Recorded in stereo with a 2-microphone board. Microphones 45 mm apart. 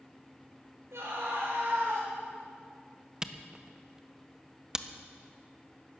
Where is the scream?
75° right (ahead or behind), 5.5 m.